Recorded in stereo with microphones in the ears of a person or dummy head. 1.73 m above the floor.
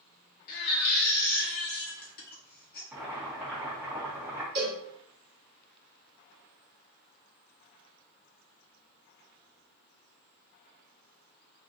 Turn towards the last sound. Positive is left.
turn(degrees=-40)  # may be behind; listen again after turning